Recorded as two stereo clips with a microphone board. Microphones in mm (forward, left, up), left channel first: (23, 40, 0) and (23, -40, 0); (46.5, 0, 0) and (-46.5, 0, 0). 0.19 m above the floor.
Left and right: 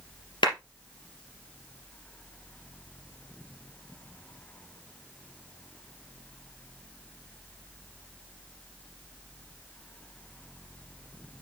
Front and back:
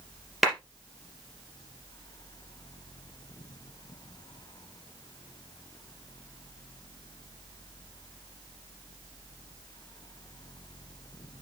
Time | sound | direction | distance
0.4 | a clap | 90° left | 3 m